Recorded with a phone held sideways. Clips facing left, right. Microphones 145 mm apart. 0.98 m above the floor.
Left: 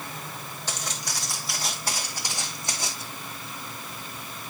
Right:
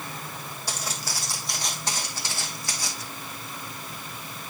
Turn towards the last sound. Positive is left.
turn(degrees=25)  # may be behind; listen again after turning